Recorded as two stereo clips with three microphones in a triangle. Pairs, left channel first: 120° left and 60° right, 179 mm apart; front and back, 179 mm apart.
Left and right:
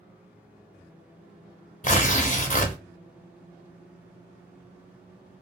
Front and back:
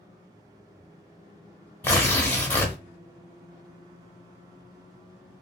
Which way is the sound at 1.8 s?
80° left.